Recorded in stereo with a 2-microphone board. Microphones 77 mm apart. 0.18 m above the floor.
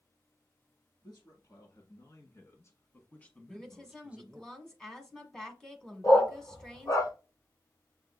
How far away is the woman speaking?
About 1.5 m.